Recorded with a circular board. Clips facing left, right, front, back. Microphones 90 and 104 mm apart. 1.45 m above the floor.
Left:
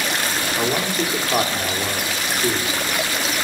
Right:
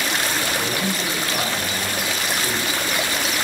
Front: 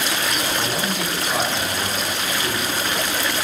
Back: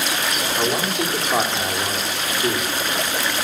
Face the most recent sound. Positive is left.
turn(degrees=120)